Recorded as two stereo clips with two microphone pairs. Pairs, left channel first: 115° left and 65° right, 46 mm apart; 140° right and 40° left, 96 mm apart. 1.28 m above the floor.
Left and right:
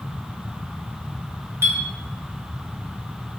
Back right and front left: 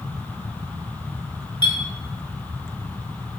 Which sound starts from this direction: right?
A clink, at 1.6 s.